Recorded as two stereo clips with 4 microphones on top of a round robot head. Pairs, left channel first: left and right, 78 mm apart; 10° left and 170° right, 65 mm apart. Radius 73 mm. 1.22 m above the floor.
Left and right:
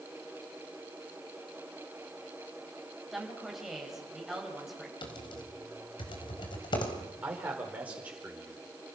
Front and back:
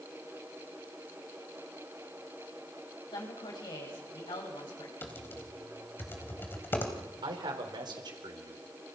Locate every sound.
3.1 s a woman speaking: 5° right, 7.5 m
5.0 s typing on a keyboard: 65° left, 4.5 m
7.2 s a man speaking: 165° right, 5 m